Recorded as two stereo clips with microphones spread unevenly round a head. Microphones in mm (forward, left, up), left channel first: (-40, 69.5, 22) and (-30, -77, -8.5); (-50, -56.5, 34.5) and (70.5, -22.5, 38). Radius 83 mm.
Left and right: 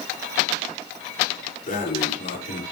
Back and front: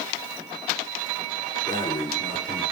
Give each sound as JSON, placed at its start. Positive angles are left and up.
{"t": 1.7, "sound": "breathing", "azimuth_deg": 130, "distance_m": 6.5}